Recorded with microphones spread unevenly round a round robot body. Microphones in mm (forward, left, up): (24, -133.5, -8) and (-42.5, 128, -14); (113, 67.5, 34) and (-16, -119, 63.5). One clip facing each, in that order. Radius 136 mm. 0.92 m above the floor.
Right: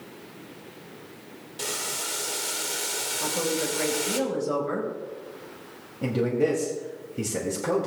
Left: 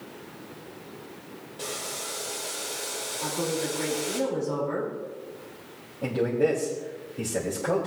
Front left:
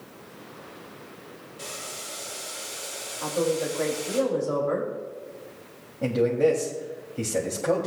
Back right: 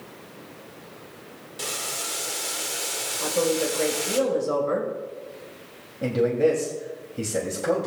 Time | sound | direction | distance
1.6 | boiling | 120° right | 1.1 m
3.2 | a woman speaking | 70° right | 4 m
6.0 | a man speaking | 35° right | 2 m